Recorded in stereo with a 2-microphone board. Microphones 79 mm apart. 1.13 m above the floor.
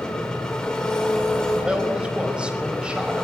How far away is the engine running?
About 4 m.